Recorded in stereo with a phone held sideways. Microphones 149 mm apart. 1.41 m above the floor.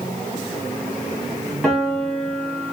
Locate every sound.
1.6 s a piano: 5° left (ahead or behind), 1.3 m